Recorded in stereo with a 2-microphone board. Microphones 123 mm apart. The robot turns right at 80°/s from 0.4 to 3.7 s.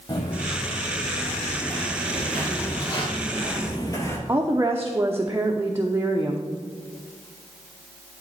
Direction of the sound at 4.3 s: 20° right (ahead or behind).